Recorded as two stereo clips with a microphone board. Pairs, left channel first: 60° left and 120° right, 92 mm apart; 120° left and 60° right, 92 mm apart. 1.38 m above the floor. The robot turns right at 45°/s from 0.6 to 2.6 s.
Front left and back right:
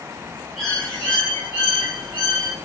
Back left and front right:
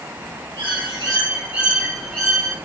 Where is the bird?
30° right, 1.3 m; by 2.5 s 55° left, 1.3 m.